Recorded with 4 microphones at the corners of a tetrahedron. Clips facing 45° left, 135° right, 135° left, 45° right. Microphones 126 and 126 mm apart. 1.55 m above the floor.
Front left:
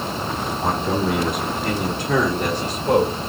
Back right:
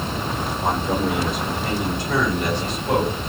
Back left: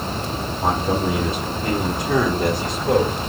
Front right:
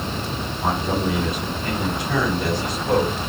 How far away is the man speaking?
About 3 m.